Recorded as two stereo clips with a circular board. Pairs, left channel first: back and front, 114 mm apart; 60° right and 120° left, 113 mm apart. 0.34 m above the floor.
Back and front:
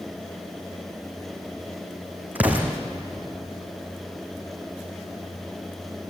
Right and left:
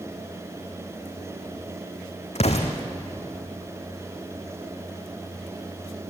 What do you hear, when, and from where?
2.4 s an explosion: 75° right, 3 m